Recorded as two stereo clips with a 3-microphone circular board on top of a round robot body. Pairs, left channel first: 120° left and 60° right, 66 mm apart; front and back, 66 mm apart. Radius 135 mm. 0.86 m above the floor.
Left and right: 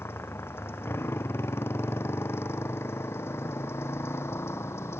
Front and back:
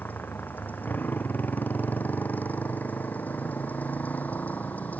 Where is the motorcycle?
65° left.